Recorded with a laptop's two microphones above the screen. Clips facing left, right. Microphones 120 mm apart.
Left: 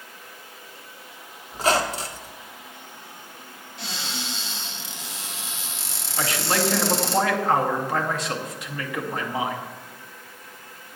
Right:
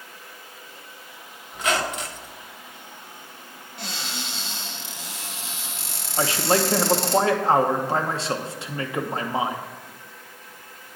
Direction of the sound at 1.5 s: 30° left (ahead or behind).